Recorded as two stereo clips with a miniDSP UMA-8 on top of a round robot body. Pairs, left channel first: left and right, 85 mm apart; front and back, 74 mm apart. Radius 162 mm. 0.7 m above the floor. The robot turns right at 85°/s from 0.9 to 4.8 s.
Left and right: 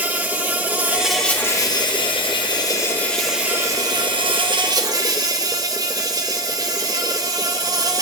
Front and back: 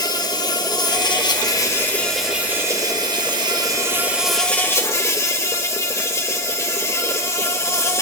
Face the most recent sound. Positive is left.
turn(degrees=-50)